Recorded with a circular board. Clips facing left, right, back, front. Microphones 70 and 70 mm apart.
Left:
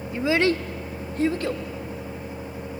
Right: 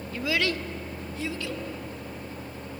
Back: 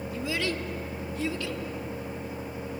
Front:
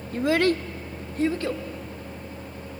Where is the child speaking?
25° left, 0.5 m; by 1.6 s 45° left, 1.4 m.